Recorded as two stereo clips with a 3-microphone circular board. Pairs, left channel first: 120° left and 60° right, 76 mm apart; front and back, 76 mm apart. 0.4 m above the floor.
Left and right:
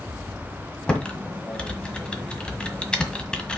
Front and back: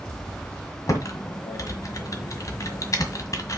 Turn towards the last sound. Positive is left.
turn(degrees=40)